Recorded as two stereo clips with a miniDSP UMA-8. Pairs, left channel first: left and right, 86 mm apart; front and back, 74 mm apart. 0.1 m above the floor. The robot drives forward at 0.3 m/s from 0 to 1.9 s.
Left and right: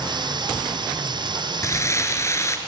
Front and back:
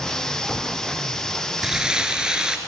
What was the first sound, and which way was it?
Crumpling, 105° left.